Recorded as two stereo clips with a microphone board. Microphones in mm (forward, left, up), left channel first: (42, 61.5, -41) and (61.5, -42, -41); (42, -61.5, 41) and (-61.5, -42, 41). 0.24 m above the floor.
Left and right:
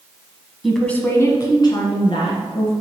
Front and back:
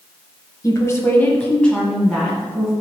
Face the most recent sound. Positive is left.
turn(degrees=85)